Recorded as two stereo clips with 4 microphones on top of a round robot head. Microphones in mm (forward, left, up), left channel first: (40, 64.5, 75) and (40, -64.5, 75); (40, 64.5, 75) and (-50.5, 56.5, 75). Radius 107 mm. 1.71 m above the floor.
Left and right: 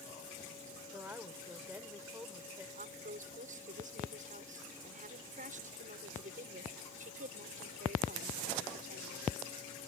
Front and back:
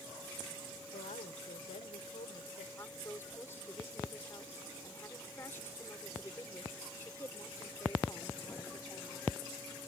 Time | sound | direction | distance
0.9 | a woman speaking | 15° right | ?
2.8 | a woman speaking | 65° right | ?